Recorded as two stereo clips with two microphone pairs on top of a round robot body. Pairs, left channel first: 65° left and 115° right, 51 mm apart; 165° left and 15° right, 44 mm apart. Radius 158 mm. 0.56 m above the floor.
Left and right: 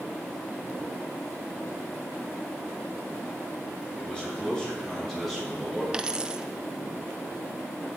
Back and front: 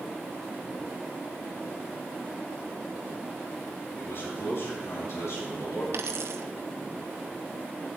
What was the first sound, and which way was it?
A man speaking, 135° left.